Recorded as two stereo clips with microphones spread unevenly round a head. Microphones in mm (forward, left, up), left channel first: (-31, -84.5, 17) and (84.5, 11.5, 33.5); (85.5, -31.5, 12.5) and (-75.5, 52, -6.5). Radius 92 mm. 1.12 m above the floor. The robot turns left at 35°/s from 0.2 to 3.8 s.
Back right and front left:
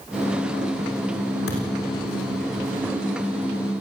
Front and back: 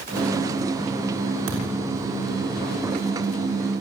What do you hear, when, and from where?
1.5 s a thud: straight behind, 6.5 m; by 1.8 s 170° left, 6.5 m